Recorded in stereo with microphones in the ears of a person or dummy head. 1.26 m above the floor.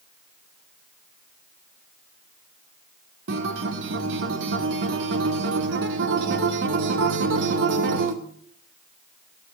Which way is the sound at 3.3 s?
65° right (ahead or behind).